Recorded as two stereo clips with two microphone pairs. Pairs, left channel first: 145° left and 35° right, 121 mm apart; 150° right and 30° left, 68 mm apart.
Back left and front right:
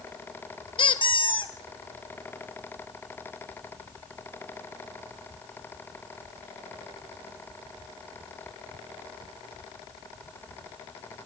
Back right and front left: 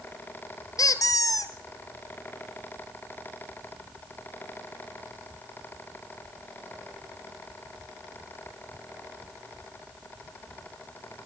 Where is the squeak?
175° right, 1.2 m.